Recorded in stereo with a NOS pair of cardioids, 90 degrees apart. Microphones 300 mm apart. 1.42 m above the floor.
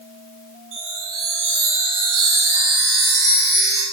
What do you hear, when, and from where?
0.7 s a chime: 70° right, 8 m